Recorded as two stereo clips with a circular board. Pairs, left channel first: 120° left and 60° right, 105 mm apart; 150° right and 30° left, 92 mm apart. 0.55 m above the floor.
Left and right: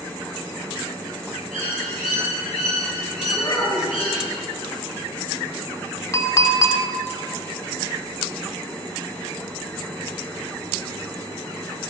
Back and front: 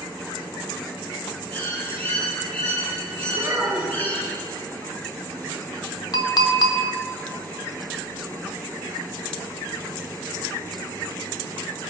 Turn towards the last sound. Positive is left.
turn(degrees=175)